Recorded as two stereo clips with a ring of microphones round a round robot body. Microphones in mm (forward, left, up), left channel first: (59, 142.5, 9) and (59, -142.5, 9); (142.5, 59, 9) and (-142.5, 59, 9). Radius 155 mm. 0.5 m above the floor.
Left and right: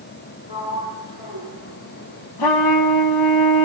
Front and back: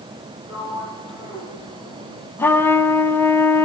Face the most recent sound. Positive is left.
turn(degrees=85)